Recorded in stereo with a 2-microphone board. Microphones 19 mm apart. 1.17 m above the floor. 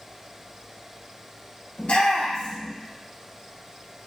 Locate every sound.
1.8 s a shout: 90° left, 2 m